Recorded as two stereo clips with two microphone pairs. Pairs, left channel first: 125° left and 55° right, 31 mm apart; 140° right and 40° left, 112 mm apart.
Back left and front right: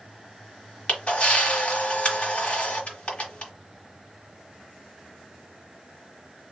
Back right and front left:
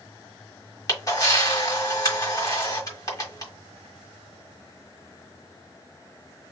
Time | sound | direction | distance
0.9 | a camera shutter | 165° left | 1.6 m